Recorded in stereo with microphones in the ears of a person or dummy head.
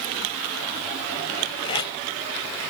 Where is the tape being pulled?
30° left (ahead or behind), 3 m.